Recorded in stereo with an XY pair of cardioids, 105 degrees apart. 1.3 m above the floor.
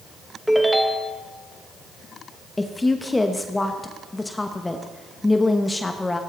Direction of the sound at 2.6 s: 15° left.